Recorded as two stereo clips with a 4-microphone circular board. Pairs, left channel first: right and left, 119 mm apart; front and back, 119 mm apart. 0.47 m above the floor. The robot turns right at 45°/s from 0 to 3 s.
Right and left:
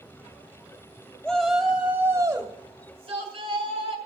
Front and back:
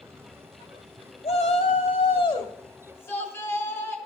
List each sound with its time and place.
1.2 s a shout: 15° right, 2 m; by 4.0 s 65° left, 2 m